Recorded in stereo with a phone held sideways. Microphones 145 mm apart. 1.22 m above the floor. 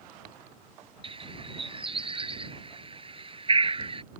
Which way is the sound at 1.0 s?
35° right (ahead or behind).